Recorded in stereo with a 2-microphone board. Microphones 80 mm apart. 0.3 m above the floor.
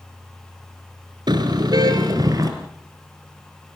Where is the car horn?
65° right (ahead or behind), 2.5 m; by 2.5 s 50° right (ahead or behind), 3.5 m.